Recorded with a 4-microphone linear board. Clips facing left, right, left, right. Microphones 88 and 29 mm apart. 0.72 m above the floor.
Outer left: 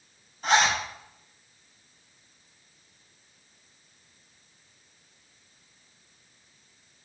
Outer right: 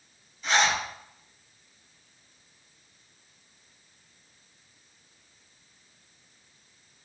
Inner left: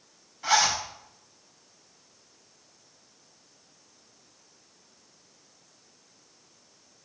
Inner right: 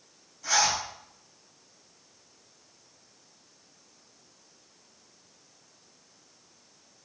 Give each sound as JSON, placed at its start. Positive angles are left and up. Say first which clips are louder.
{"t": 0.4, "sound": "a zipper", "louder": "outer left 2 dB, inner left 3 dB", "side_deg": 50, "distance_m": 4.5}